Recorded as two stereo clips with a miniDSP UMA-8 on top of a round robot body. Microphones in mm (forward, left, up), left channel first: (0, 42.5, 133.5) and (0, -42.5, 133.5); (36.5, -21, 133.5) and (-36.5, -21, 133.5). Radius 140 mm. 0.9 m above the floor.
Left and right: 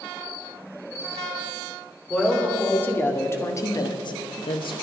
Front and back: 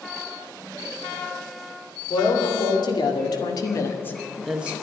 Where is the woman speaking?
15° left, 3.5 m; by 4.7 s 110° left, 1.1 m.